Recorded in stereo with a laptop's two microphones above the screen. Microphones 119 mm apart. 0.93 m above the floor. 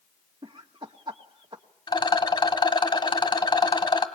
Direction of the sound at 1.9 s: 40° left (ahead or behind).